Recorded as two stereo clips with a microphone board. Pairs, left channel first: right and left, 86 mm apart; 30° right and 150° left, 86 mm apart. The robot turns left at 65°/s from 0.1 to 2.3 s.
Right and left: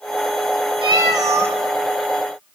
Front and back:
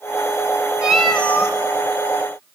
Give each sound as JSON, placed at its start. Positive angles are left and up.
{"t": 0.8, "sound": "a cat meowing", "azimuth_deg": 70, "distance_m": 0.9}